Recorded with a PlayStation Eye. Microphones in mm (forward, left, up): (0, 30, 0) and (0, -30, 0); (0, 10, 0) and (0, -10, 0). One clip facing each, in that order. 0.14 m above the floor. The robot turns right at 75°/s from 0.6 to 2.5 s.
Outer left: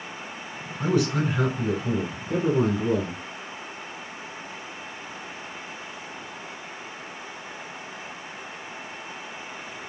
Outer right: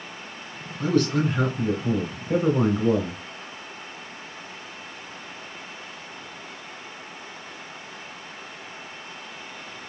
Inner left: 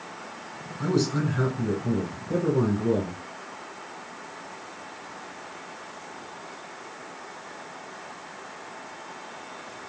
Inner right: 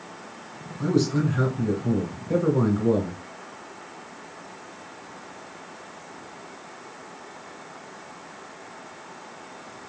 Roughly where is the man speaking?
Centre.